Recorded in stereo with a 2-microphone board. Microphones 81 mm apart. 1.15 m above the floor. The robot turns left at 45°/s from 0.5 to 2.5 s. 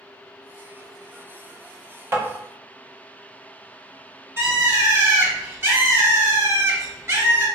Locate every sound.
2.1 s tapping: 30° right (ahead or behind), 0.9 m; by 2.2 s 35° right (ahead or behind), 0.9 m
4.4 s a bird: 35° right (ahead or behind), 1.0 m